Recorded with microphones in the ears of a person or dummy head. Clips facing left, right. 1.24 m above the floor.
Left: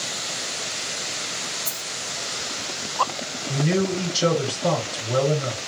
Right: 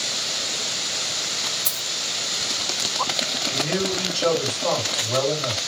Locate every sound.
1.6 s a dropped coin: 20° right (ahead or behind), 0.6 m
3.5 s a man speaking: 50° left (ahead or behind), 1.2 m